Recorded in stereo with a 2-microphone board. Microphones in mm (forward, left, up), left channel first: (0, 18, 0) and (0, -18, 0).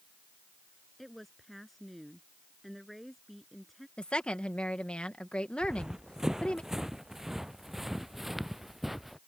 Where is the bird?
I don't hear a bird.